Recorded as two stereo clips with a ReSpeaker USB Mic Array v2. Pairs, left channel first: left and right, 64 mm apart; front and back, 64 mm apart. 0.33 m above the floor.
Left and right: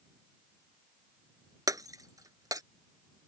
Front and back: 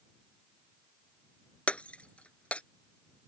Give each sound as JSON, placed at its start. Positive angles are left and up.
{"t": 1.7, "sound": "breaking glass", "azimuth_deg": -70}